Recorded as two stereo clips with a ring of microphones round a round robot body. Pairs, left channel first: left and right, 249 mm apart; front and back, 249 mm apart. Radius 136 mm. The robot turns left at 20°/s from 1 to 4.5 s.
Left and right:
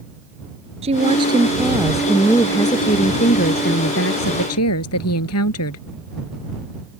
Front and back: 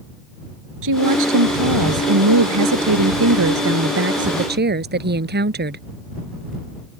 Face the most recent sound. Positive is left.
turn(degrees=130)